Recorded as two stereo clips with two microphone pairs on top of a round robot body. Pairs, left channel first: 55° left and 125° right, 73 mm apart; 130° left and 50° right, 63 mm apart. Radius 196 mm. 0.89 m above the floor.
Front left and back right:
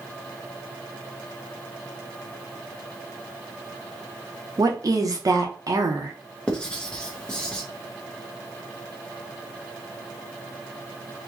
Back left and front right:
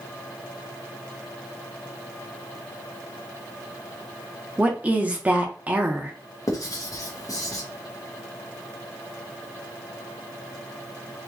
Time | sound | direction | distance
4.6 | a woman speaking | 110° right | 1.2 m
6.5 | writing | 135° left | 1.3 m